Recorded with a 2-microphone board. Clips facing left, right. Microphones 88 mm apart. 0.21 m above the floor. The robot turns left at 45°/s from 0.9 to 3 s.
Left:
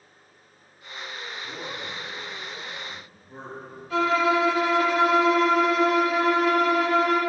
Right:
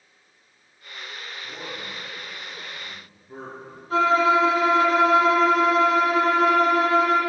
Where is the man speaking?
Centre (ahead or behind), 2.5 m; by 3.8 s 60° right (ahead or behind), 2.5 m.